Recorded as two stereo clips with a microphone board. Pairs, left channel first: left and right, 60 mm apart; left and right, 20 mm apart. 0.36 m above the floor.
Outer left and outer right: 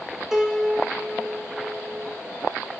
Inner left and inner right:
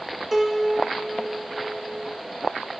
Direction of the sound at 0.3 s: 10° right (ahead or behind).